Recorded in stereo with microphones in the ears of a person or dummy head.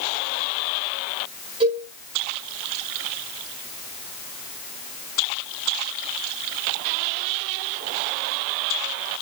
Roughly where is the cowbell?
Right.